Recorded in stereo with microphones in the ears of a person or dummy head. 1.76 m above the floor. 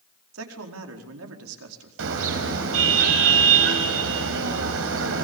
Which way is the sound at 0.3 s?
85° right.